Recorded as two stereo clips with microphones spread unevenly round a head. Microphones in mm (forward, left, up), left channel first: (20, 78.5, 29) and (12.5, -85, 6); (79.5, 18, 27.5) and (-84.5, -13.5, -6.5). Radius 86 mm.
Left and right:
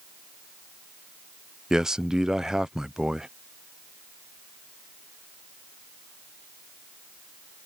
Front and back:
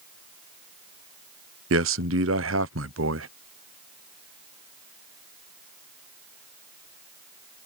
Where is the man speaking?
Straight behind.